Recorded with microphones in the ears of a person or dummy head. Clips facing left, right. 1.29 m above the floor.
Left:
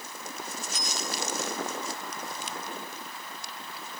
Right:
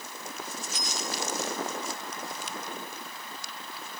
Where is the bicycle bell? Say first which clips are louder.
Even; 80° left.